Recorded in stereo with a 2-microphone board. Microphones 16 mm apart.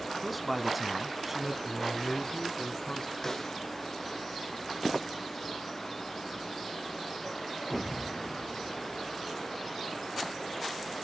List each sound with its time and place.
0.2 s a man speaking: centre (ahead or behind), 1.6 m; by 1.5 s 25° right (ahead or behind), 1.6 m
1.6 s a man speaking: 40° left (ahead or behind), 1.8 m
3.2 s a snare drum: 30° left (ahead or behind), 3 m